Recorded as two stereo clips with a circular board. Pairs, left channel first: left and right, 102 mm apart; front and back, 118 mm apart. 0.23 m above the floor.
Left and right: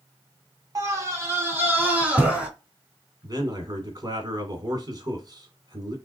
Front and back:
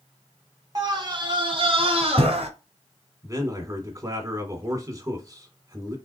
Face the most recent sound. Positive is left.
turn(degrees=-125)